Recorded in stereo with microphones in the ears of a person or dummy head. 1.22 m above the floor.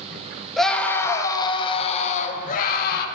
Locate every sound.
0.6 s a scream: centre (ahead or behind), 1.9 m; by 3.0 s 55° left (ahead or behind), 2.5 m